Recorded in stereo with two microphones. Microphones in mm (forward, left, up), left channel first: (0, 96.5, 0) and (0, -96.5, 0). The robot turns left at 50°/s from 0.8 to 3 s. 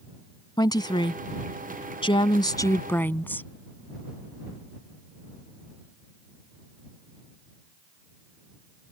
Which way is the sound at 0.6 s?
20° left (ahead or behind).